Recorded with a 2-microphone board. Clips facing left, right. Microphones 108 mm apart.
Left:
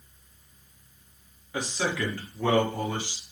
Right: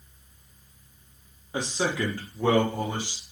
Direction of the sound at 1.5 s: 25° right (ahead or behind).